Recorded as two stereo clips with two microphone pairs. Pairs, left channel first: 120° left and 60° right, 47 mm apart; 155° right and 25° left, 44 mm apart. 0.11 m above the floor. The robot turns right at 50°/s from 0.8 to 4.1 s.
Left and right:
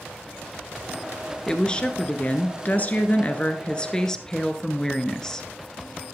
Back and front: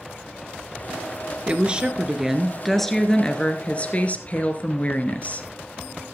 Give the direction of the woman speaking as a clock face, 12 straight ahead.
10 o'clock.